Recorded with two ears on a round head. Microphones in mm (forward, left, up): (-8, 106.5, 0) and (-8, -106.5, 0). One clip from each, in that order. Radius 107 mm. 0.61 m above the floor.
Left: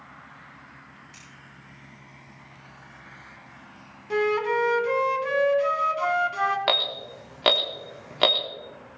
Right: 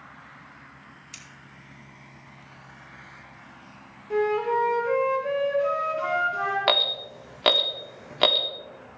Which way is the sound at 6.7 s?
Centre (ahead or behind).